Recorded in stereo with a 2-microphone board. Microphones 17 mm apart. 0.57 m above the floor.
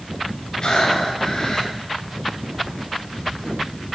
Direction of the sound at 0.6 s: 50° left (ahead or behind).